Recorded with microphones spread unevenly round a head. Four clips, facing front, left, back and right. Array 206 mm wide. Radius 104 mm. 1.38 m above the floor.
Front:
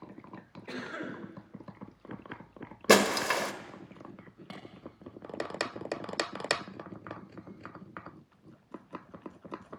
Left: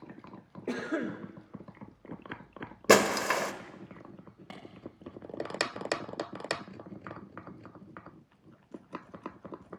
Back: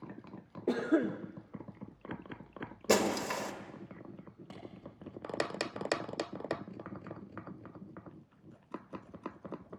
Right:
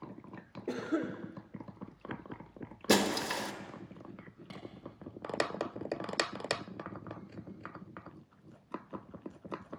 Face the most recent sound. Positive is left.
turn(degrees=60)